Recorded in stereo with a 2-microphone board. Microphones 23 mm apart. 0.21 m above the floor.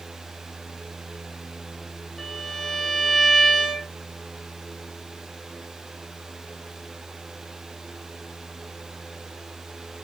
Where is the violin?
20° left (ahead or behind), 1.1 m.